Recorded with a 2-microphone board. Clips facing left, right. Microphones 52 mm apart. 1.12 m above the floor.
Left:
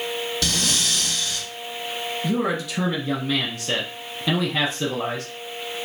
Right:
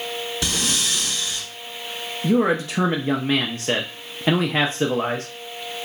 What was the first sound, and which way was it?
Breathing, 20° right (ahead or behind).